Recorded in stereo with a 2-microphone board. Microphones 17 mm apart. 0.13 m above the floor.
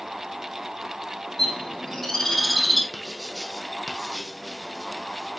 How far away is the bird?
About 3.5 m.